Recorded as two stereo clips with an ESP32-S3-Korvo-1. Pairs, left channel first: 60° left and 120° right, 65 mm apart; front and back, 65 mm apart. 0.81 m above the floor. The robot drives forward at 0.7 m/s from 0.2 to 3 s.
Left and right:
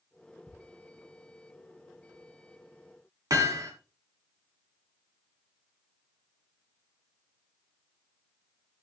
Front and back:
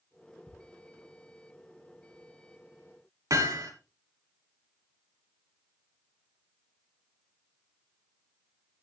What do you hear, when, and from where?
0.5 s ticking: 55° right, 5 m
3.3 s hammering: 150° right, 2.5 m